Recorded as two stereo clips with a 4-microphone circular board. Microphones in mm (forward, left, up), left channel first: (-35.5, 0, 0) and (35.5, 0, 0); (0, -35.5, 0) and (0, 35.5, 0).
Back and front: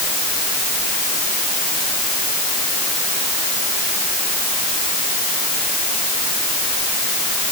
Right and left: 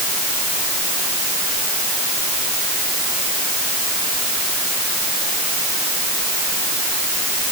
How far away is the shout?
I don't hear a shout.